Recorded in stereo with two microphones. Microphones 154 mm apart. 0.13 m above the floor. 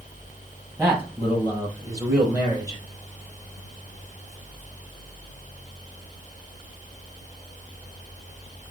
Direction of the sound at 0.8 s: 15° right (ahead or behind).